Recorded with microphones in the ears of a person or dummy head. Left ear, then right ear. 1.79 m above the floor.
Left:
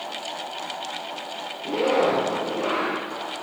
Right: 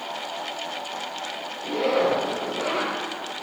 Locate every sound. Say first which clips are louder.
1.6 s a zipper: left 1 dB; 5° right (ahead or behind), 9 m